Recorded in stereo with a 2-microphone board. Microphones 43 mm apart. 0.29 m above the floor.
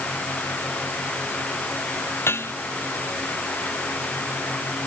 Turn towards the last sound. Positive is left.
turn(degrees=70)  # may be behind; listen again after turning